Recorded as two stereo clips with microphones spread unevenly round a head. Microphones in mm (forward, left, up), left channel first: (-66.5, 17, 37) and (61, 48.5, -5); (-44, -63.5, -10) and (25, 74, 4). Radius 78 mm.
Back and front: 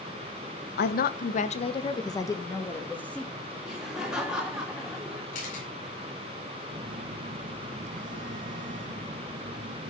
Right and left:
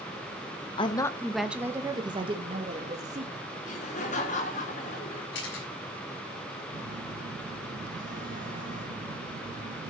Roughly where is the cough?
No cough in this recording.